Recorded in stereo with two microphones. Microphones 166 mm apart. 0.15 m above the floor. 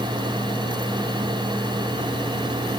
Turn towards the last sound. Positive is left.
No sound to turn to.